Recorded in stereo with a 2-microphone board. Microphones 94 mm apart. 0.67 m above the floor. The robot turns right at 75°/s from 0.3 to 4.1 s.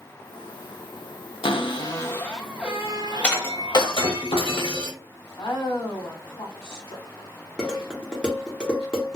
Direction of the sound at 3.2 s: 15° left.